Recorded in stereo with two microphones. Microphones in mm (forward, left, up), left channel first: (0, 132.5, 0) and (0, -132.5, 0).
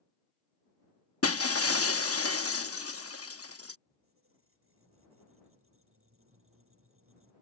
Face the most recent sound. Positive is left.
turn(degrees=-55)  # may be behind; listen again after turning